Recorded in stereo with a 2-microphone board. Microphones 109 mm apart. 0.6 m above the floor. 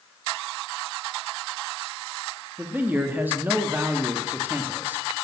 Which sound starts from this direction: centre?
A man speaking, at 2.6 s.